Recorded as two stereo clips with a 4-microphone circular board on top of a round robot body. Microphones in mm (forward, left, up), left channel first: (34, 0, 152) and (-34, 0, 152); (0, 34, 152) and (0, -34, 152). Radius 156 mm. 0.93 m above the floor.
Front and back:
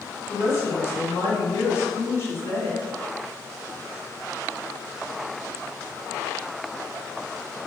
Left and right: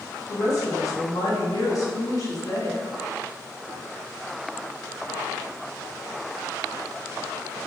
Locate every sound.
0.3 s a woman speaking: 50° left, 1.3 m